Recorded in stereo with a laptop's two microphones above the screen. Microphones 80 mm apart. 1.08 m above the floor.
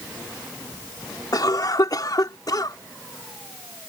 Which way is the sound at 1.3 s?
55° left (ahead or behind).